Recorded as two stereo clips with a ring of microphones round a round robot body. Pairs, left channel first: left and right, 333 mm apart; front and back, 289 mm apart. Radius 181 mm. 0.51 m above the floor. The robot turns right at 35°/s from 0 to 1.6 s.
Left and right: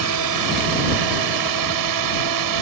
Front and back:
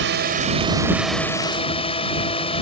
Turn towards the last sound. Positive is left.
turn(degrees=-70)